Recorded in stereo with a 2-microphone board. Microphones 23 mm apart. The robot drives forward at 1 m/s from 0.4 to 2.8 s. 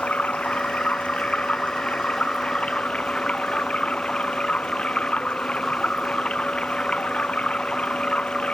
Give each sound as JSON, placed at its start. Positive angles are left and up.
{"t": 0.0, "sound": "running water", "side_deg": 65}